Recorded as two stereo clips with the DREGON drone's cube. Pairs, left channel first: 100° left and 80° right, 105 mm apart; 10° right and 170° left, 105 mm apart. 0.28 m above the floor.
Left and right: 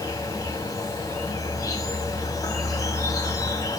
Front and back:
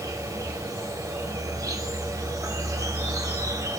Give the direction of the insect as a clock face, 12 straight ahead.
8 o'clock.